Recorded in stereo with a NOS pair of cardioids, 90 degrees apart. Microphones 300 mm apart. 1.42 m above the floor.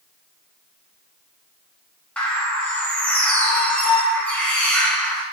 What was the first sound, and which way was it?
A bird, 5° left.